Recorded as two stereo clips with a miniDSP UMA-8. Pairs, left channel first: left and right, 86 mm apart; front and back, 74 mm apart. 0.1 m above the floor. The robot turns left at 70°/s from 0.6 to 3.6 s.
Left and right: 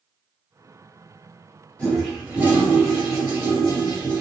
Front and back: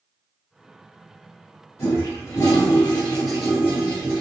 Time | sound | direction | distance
1.8 | a toilet flushing | 20° left | 1.8 m